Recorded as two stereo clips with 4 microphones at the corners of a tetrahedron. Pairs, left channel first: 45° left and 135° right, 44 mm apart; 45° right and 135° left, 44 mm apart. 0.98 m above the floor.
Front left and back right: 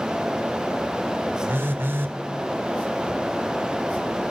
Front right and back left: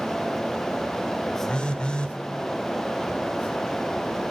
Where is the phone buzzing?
110° right, 1.5 m.